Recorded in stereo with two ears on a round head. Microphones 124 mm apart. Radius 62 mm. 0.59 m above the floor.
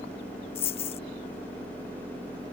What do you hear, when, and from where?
0.6 s a dropped coin: 45° left (ahead or behind)